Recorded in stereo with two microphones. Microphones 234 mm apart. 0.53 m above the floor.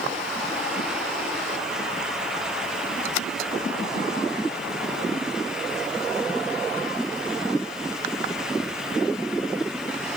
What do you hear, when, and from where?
Only background noise.